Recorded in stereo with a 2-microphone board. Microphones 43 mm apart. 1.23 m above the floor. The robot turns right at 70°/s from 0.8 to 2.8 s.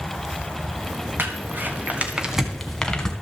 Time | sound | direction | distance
1.2 | crumpling | 50° right (ahead or behind) | 1.6 m